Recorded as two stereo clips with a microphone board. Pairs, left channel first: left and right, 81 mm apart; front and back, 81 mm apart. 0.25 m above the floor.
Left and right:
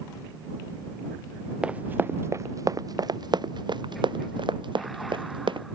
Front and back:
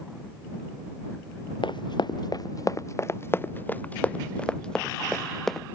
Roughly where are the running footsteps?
Ahead.